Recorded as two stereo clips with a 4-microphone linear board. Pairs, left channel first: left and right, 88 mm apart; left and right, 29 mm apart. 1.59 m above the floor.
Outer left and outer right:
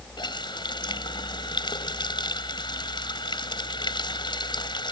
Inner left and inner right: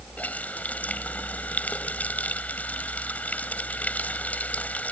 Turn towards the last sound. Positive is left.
turn(degrees=60)  # may be behind; listen again after turning